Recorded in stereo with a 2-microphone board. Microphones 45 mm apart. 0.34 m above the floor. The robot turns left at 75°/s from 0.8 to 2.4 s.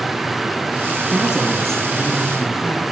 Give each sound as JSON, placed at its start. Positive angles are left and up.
{"t": 1.0, "sound": "a woman speaking", "azimuth_deg": -135, "distance_m": 4.5}